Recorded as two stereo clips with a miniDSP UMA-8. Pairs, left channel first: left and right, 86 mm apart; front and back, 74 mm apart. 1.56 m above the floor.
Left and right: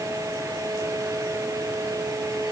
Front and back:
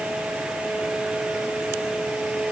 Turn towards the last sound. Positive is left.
No sound to turn to.